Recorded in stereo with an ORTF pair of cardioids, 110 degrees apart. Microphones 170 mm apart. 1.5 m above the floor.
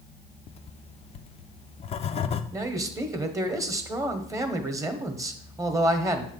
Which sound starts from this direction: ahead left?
Writing, at 0.5 s.